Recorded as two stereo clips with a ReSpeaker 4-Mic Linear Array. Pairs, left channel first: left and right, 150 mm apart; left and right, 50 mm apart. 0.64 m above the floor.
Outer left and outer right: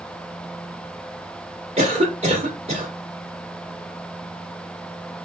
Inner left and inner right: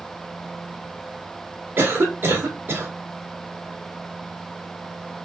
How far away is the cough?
About 1.5 m.